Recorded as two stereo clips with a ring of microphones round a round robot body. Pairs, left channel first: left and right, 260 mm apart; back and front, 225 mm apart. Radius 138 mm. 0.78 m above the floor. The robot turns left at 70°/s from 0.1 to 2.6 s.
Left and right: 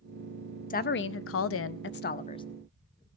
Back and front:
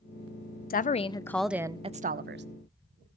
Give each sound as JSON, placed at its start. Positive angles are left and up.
{"t": 0.7, "sound": "a woman speaking", "azimuth_deg": 140, "distance_m": 0.6}